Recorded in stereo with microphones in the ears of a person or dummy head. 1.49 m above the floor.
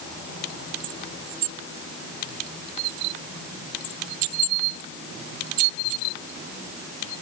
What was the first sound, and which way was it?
Only background noise.